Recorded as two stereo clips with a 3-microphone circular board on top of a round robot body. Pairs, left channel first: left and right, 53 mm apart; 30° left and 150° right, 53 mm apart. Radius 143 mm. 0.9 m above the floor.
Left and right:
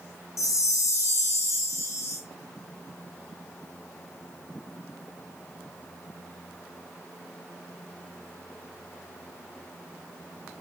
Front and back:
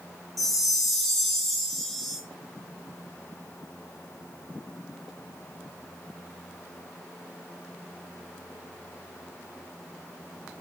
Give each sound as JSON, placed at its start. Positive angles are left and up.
{"t": 0.4, "sound": "a chime", "azimuth_deg": 115, "distance_m": 0.5}